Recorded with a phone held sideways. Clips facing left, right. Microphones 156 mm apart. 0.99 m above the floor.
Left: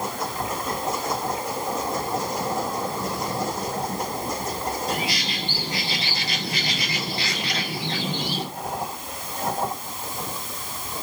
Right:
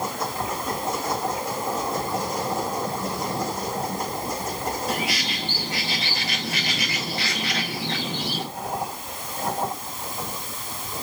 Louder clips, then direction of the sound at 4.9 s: Even; 30° left (ahead or behind).